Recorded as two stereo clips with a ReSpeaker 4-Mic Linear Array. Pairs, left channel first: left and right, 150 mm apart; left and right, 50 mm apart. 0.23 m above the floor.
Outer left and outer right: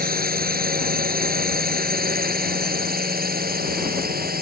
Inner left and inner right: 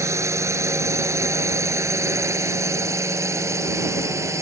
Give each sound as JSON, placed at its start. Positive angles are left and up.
{"t": 0.0, "sound": "a drone", "side_deg": -70}